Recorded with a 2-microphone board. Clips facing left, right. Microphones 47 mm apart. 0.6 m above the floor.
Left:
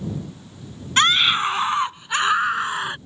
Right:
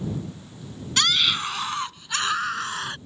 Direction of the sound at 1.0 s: 35° left (ahead or behind).